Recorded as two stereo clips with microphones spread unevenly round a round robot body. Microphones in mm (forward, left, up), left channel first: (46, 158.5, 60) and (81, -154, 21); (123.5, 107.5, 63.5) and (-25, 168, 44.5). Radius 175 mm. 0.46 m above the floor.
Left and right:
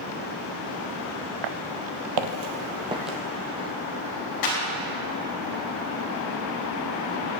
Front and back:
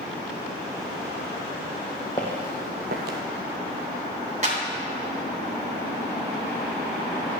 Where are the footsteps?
95° right, 0.8 m; by 3.2 s 175° left, 0.7 m.